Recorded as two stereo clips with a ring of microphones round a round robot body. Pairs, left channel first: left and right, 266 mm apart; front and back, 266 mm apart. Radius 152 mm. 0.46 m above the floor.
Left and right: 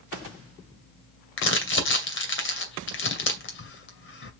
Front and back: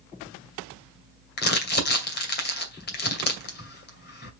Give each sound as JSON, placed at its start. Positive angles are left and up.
{"t": 1.4, "sound": "crumpling", "azimuth_deg": 50, "distance_m": 2.5}